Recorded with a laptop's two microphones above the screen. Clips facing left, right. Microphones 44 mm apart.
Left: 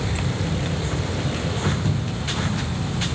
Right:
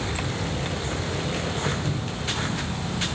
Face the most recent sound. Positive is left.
turn(degrees=25)  # may be behind; listen again after turning